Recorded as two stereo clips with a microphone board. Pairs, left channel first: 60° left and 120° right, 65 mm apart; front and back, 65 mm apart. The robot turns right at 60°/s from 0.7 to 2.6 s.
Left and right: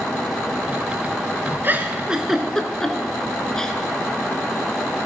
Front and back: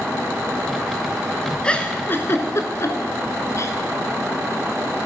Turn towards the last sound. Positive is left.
turn(degrees=-15)